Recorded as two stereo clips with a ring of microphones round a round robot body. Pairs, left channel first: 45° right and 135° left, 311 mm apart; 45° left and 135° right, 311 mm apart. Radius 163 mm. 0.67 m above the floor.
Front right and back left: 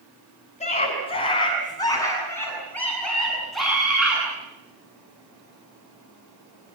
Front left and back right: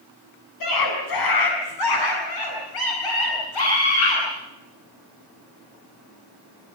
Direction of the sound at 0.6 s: 25° left.